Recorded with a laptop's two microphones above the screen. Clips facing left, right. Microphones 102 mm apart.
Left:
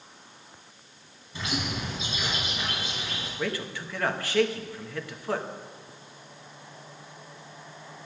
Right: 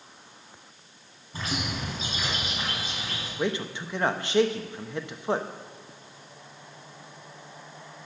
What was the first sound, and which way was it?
A bird, 45° right (ahead or behind).